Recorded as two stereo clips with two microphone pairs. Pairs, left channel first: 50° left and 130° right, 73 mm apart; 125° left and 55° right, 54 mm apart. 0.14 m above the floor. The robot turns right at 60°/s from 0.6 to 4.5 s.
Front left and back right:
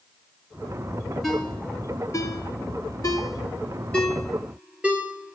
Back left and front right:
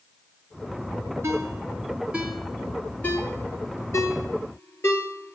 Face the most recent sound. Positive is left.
turn(degrees=160)